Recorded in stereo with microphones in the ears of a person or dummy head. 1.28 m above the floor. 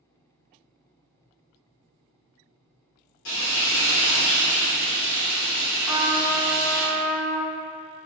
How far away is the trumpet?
About 0.7 m.